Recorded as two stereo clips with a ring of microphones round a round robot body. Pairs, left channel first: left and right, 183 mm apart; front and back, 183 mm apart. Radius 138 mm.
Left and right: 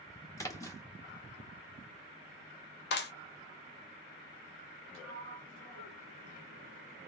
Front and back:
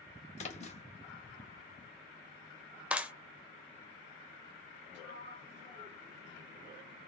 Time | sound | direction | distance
0.4 | a splash | 25° left | 1.7 m
2.9 | a clap | 95° left | 1.0 m
4.9 | a sliding door | 130° right | 0.7 m